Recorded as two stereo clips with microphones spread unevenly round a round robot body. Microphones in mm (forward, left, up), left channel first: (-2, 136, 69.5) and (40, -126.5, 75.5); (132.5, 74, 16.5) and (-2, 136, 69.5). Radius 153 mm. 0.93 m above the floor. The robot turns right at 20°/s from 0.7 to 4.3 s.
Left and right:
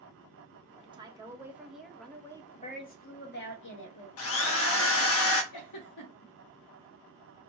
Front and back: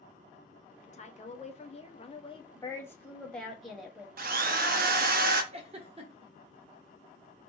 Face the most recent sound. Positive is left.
turn(degrees=120)